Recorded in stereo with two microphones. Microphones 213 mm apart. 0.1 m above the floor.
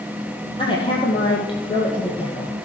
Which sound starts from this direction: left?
A woman speaking, at 0.6 s.